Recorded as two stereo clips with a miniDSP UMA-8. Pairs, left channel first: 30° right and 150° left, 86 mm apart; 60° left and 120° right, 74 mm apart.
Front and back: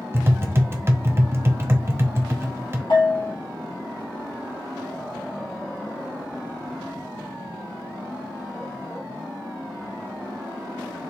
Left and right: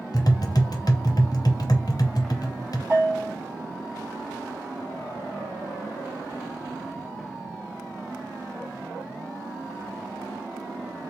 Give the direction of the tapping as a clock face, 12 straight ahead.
9 o'clock.